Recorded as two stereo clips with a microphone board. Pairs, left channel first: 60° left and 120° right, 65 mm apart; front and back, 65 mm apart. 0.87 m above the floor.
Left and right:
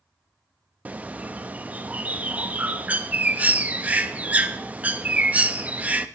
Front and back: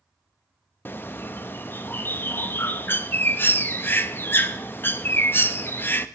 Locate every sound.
0.8 s a bird: 55° right, 0.6 m